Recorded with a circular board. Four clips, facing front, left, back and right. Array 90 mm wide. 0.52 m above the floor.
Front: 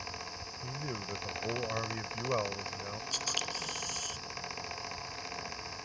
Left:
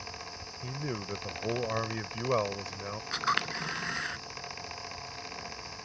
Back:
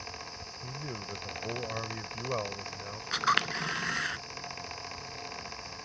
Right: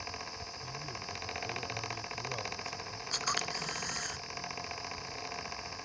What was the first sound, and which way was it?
A man speaking, 85° left.